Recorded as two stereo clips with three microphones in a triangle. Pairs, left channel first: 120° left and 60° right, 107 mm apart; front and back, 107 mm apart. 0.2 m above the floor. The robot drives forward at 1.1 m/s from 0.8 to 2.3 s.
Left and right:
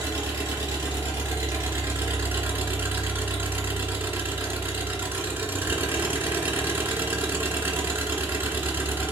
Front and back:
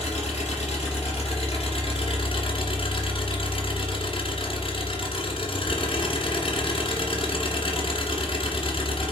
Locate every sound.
0.0 s an engine running: 5° left, 3 m